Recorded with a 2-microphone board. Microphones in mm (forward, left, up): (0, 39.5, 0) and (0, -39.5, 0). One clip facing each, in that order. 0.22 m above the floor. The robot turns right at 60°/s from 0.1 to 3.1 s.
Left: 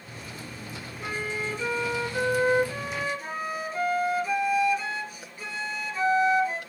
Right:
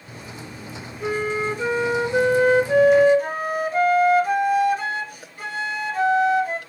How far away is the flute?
About 1.5 m.